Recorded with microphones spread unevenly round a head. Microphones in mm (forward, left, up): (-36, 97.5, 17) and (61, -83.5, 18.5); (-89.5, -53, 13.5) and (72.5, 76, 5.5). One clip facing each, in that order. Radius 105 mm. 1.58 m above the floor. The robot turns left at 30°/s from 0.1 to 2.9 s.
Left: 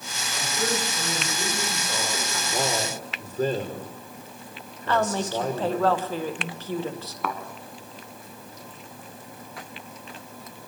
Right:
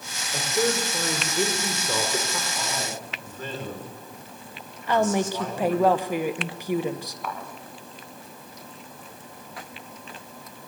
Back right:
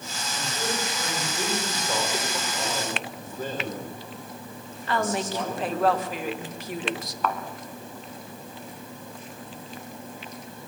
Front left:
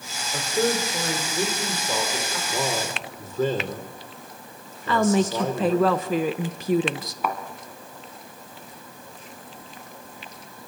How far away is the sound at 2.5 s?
About 5.5 m.